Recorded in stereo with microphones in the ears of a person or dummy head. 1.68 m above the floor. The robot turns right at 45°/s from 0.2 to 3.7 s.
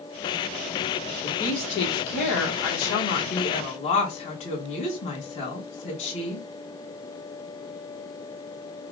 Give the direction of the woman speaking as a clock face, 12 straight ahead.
11 o'clock.